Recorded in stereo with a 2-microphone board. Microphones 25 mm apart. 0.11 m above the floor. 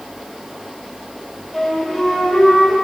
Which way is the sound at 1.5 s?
5° left (ahead or behind).